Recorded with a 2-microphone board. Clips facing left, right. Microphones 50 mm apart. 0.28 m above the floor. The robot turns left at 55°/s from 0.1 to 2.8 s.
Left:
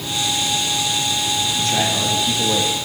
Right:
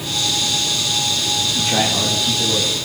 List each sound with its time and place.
1.6 s a man speaking: 145° right, 9.5 m; by 2.9 s 145° left, 9.5 m